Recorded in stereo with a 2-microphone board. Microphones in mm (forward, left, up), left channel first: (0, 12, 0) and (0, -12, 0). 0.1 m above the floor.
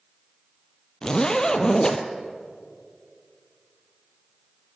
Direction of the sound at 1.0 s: 30° left (ahead or behind).